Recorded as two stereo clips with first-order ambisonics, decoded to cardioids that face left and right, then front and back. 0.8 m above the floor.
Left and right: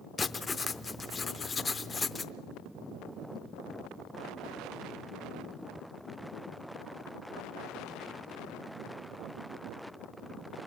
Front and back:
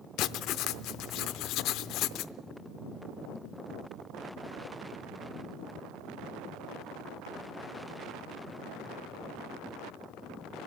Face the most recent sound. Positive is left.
turn(degrees=20)